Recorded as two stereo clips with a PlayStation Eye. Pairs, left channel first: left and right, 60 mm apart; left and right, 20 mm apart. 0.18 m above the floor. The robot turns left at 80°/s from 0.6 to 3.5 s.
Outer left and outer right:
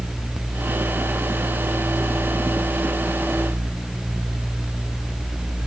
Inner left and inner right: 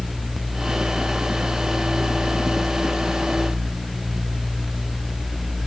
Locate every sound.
Only background noise.